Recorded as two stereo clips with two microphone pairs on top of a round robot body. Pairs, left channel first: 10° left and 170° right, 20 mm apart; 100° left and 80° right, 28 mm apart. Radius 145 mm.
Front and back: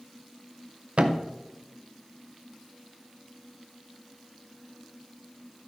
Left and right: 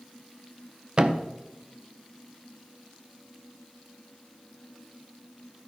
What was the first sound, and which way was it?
A thud, 140° right.